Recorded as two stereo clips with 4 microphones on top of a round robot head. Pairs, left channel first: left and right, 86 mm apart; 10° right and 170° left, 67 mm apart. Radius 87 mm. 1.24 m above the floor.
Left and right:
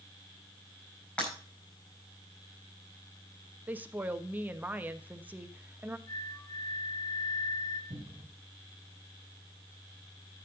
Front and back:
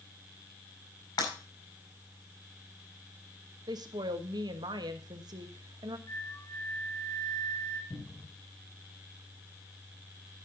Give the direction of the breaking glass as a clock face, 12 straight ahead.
12 o'clock.